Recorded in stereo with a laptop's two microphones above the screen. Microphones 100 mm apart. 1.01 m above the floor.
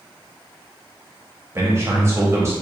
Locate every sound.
1.6 s a man speaking: 25° right (ahead or behind), 0.9 m